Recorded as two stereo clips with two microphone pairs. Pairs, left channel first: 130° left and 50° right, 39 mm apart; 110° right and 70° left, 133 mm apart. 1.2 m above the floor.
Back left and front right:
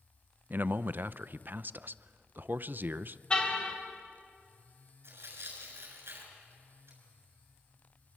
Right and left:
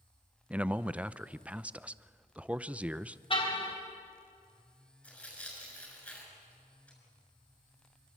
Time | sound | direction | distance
0.5 | a man speaking | 5° right | 0.6 m
3.3 | a car horn | 160° right | 3 m
5.0 | tearing paper | 25° right | 6.5 m